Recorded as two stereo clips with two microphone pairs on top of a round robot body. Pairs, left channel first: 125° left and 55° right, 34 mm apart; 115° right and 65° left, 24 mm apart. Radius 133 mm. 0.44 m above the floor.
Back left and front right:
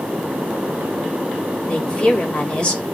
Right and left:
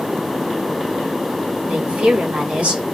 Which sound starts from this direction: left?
A woman speaking, at 1.7 s.